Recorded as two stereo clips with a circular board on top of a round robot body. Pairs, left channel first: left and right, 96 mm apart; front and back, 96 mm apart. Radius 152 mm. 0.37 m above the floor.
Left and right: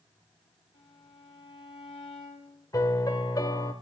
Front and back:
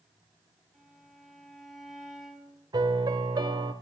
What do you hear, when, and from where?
0.7 s a violin: 90° left, 5 m
2.7 s a piano: 135° left, 1.7 m